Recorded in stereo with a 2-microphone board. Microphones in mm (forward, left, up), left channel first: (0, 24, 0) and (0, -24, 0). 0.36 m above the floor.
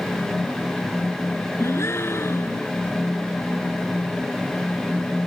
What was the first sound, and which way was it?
A gasp, 60° left (ahead or behind).